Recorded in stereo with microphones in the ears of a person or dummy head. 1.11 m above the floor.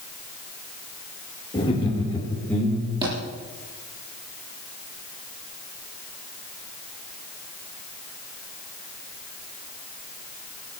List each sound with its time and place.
1.5 s laughter: 15° left (ahead or behind), 3 m; by 3.1 s centre (ahead or behind), 2.5 m
3.0 s a thud: 30° right (ahead or behind), 9.5 m